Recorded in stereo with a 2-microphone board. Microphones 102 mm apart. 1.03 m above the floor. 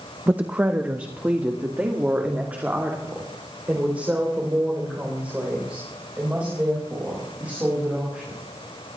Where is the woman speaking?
15° right (ahead or behind), 0.6 m.